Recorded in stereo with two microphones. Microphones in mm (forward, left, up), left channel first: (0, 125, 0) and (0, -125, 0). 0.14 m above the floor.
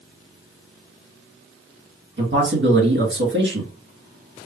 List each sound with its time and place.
2.2 s a man speaking: 45° right (ahead or behind), 2 m